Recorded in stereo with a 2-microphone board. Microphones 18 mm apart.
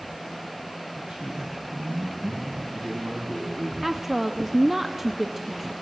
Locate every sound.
0.9 s a man speaking: 60° right (ahead or behind), 4.5 m; by 3.7 s 65° right (ahead or behind), 6 m
3.8 s a woman speaking: 10° right (ahead or behind), 0.9 m